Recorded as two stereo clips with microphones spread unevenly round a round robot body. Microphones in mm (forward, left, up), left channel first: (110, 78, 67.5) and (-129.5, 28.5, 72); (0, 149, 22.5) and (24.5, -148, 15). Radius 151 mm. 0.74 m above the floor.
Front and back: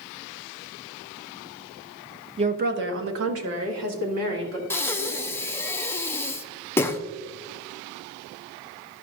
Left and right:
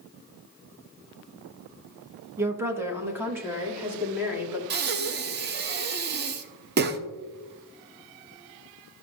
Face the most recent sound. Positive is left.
turn(degrees=-60)